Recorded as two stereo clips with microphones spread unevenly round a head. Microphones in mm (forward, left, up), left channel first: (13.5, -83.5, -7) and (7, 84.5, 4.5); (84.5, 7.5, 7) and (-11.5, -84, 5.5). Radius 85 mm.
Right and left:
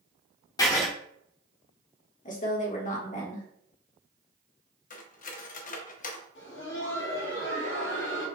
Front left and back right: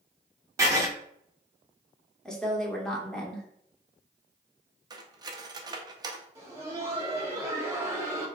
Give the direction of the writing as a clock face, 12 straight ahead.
4 o'clock.